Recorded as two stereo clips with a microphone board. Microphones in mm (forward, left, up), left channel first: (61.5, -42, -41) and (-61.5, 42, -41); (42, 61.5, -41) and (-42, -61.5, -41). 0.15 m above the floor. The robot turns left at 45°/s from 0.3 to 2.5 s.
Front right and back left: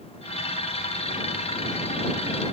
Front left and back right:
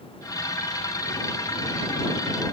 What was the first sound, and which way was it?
Only background noise.